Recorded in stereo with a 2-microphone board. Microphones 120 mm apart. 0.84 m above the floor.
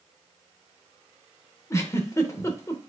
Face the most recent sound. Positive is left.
turn(degrees=25)  # may be behind; listen again after turning